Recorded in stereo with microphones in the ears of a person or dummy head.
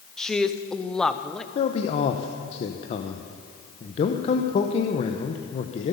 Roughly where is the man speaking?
Left.